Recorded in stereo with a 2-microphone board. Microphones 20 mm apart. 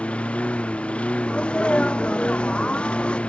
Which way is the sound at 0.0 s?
85° left.